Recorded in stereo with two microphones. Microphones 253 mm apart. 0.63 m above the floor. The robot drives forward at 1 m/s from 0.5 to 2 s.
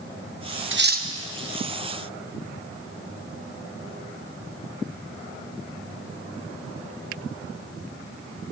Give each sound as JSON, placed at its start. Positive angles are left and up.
{"t": 0.7, "sound": "cutlery clinking", "side_deg": -50, "distance_m": 0.5}